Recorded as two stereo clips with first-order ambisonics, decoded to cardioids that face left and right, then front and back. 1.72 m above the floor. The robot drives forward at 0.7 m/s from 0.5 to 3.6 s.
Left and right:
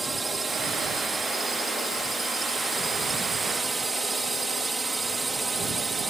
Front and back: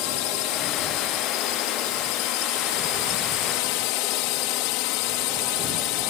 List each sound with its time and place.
0.0 s a drone: 10° right